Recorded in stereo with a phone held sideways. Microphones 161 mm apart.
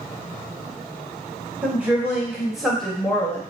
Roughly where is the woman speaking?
Centre.